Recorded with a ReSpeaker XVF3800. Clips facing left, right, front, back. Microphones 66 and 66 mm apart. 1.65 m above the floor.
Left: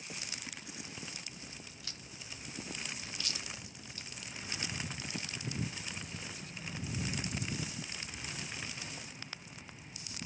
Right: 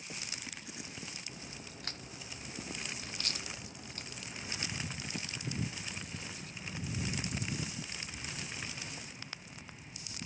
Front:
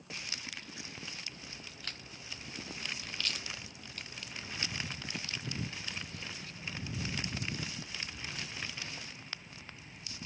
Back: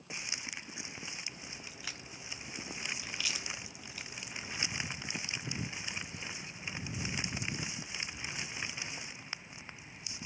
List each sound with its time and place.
1.3 s a crack: 100° right, 0.5 m